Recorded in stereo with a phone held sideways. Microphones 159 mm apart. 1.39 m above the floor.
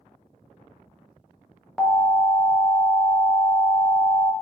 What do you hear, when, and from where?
1.8 s an alarm: centre (ahead or behind), 0.6 m